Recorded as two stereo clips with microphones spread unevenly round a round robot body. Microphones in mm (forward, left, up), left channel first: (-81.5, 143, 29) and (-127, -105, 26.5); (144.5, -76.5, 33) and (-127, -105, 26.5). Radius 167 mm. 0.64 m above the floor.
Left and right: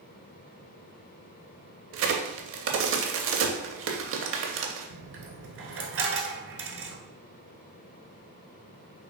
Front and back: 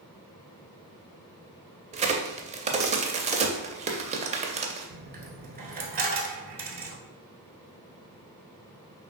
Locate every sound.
1.9 s a crack: 110° right, 0.5 m
4.9 s a dropped coin: 120° right, 0.9 m